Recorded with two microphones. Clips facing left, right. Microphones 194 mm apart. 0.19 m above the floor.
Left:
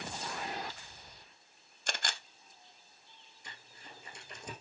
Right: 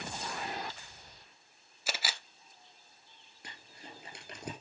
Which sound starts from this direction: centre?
A camera shutter, at 1.9 s.